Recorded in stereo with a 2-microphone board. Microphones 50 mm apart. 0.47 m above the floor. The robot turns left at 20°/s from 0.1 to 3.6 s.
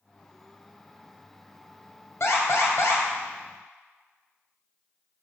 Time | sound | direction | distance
2.2 | an alarm | 65° left (ahead or behind) | 2.5 m